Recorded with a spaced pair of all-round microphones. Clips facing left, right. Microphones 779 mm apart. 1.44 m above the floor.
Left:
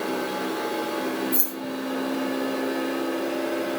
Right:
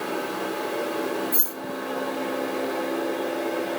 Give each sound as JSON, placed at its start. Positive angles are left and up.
{"t": 1.3, "sound": "keys jangling", "side_deg": -55, "distance_m": 0.9}